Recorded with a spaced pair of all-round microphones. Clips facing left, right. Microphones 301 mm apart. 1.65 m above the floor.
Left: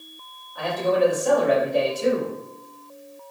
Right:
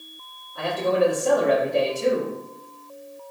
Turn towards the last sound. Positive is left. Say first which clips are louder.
# even
turn(degrees=-30)  # may be behind; listen again after turning